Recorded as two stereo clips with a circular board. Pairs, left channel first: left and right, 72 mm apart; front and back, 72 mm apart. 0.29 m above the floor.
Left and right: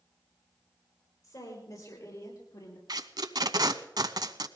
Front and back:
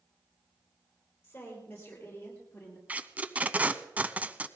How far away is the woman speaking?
About 9 m.